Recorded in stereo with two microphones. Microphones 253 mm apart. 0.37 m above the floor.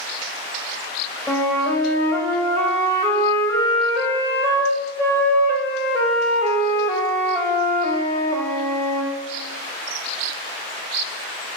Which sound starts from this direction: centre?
A flute, at 1.3 s.